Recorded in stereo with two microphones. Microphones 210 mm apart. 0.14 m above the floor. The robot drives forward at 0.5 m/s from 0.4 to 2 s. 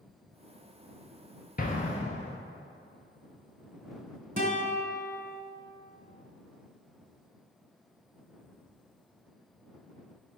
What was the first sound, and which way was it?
An explosion, 45° left (ahead or behind).